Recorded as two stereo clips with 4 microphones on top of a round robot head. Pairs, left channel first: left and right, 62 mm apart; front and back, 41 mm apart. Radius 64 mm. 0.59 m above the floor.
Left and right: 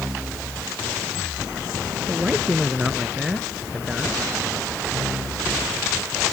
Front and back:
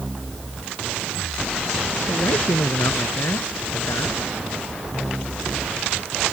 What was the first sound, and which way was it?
A man speaking, 5° right.